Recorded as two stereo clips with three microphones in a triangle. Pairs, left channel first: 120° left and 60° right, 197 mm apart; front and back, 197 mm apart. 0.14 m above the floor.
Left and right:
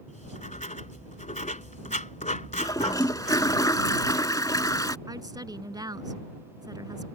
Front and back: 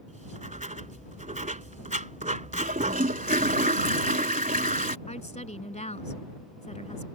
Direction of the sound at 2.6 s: 175° right.